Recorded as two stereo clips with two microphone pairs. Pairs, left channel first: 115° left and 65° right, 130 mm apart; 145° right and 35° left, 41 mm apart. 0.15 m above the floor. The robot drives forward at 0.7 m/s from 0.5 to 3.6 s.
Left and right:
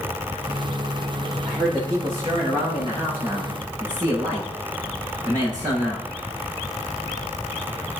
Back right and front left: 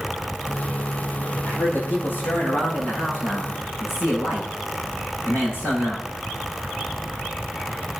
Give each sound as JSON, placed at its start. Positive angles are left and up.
{"t": 1.4, "sound": "a man speaking", "azimuth_deg": -110, "distance_m": 7.0}